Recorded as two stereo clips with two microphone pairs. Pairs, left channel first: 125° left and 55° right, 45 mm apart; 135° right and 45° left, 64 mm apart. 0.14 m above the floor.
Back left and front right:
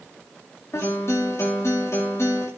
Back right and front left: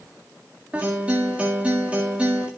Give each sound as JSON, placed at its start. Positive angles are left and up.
{"t": 0.7, "sound": "a guitar", "azimuth_deg": 110, "distance_m": 8.5}